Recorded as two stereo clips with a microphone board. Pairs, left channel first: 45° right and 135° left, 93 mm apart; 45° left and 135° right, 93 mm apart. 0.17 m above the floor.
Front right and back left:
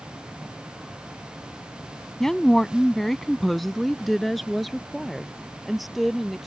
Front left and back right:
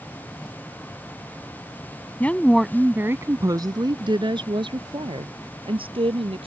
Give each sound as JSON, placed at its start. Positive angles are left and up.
{"t": 2.2, "sound": "a woman speaking", "azimuth_deg": 30}